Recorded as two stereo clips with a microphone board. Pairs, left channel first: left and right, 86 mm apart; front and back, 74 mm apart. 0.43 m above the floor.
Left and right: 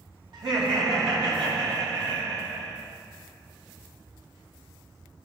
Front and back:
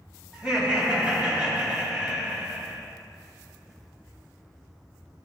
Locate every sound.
0.3 s laughter: 105° right, 2 m